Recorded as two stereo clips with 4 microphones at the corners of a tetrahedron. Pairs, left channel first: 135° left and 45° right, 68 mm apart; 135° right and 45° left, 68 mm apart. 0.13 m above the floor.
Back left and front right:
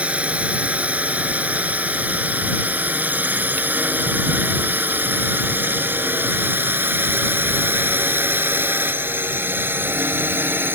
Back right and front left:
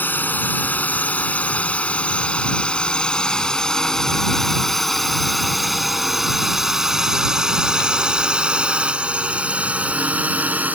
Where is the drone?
100° right; by 10.8 s 5° right.